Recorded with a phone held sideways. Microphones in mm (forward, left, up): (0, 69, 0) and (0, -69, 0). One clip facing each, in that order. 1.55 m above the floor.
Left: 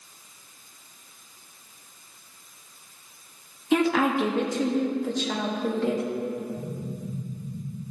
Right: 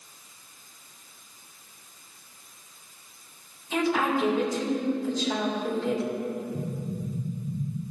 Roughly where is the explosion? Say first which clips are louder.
Right 1 dB; right.